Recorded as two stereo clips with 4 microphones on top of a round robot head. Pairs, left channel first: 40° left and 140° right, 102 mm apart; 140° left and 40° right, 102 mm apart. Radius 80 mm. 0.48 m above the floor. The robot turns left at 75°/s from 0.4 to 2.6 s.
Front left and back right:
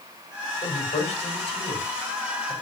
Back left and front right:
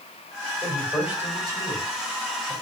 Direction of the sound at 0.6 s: 75° left.